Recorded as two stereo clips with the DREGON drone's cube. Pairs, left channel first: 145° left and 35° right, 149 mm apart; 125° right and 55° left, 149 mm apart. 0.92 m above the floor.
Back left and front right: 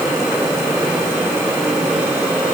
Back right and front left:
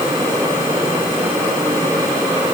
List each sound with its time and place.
Only background noise.